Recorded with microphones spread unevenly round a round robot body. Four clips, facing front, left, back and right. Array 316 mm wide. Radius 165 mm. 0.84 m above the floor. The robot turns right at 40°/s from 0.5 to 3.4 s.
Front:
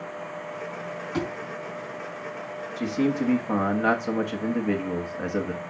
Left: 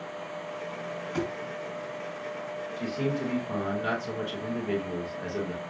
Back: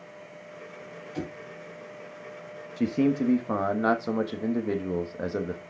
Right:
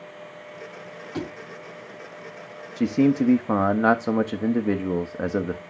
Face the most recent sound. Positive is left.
turn(degrees=-80)